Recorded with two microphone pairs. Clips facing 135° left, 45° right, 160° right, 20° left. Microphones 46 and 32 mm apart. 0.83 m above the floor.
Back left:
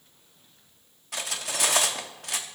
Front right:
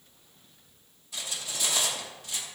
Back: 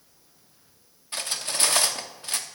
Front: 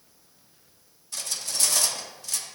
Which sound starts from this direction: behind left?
Cutlery clinking, at 1.1 s.